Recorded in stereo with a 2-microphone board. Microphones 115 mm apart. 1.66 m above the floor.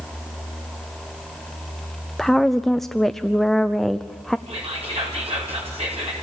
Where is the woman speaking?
5° left (ahead or behind), 0.5 m.